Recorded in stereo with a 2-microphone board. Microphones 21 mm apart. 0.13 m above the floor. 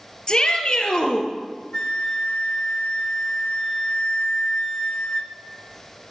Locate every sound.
0.3 s a shout: 35° left (ahead or behind), 2.5 m
1.7 s a flute: 35° left (ahead or behind), 0.9 m